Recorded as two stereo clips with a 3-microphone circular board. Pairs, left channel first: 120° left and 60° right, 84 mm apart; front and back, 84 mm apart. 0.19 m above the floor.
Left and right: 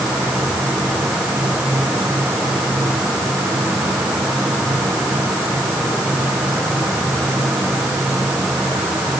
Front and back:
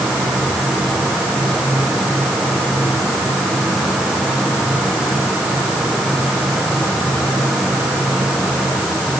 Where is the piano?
I don't hear a piano.